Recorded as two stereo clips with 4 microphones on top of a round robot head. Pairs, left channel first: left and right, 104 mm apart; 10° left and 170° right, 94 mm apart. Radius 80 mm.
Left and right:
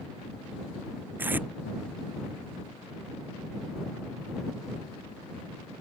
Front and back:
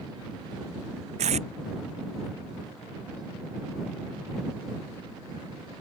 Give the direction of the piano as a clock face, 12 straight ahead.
I don't hear a piano.